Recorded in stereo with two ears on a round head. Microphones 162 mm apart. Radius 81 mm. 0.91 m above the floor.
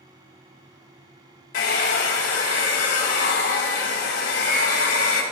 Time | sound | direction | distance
1.5 | a hair dryer | 75° left (ahead or behind) | 2.5 m